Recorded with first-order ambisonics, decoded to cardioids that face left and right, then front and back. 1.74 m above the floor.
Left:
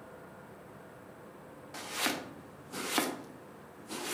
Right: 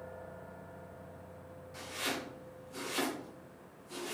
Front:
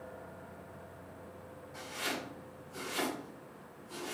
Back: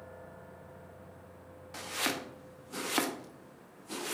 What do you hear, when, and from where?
1.7 s chopping: 140° left, 0.6 m